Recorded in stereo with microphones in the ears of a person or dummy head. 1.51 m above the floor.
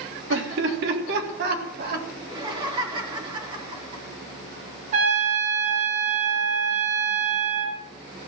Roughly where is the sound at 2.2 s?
Right.